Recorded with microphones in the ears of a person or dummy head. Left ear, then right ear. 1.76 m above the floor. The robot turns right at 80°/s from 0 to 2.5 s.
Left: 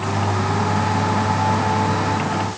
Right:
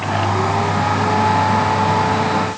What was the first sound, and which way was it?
Only background noise.